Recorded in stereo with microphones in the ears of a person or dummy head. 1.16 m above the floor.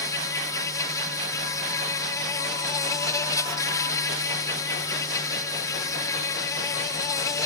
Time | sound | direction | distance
0.0 | an insect | 15° left (ahead or behind) | ?